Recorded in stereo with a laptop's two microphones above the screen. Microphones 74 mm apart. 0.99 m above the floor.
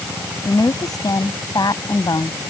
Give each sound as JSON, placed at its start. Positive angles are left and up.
{"t": 0.5, "sound": "a woman speaking", "side_deg": 65}